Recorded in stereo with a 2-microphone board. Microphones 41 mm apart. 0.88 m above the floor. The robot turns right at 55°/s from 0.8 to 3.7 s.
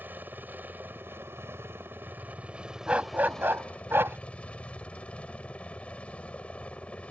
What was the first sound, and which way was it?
A helicopter, 130° right.